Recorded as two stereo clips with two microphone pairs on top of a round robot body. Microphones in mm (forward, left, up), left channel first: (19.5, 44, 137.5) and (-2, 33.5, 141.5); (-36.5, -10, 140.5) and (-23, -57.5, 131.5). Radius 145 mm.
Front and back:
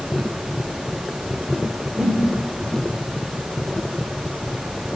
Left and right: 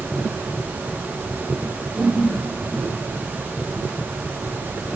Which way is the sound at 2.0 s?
145° right.